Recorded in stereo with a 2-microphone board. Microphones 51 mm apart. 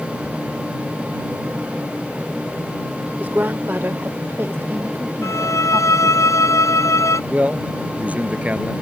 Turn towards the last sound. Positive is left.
turn(degrees=-30)  # may be behind; listen again after turning